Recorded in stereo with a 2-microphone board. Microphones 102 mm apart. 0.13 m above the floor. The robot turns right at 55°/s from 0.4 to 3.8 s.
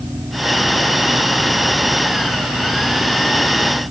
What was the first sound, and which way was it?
Only background noise.